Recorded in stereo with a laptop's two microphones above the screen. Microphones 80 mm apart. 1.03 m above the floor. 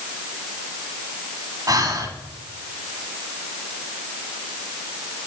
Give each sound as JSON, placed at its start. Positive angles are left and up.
{"t": 1.7, "sound": "breathing", "side_deg": -45, "distance_m": 1.3}